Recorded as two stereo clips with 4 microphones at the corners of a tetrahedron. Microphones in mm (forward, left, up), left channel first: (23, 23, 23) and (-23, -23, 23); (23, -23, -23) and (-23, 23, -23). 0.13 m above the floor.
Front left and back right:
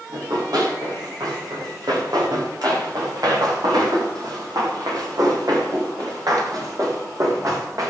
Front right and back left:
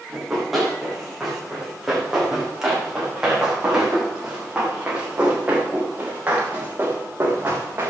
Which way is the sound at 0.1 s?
135° right.